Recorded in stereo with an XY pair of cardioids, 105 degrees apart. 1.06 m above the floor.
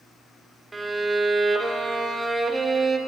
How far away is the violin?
About 0.8 m.